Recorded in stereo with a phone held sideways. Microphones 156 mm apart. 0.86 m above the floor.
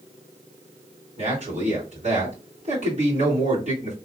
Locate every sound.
1.2 s a man speaking: 45° right (ahead or behind), 2.5 m